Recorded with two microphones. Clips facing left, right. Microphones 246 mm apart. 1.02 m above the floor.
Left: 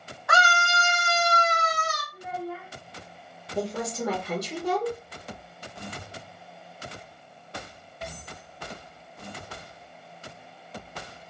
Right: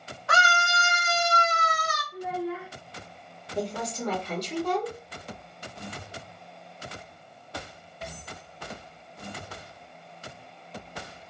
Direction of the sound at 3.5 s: 10° left (ahead or behind).